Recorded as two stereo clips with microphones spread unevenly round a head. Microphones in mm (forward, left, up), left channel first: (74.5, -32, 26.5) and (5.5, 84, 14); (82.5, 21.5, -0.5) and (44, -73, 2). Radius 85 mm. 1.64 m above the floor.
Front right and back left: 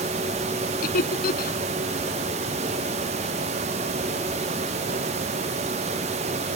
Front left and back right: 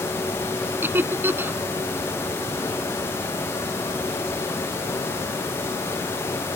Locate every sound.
0.8 s laughter: 45° right